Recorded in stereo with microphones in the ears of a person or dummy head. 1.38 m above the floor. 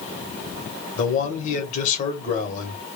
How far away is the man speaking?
About 1.2 m.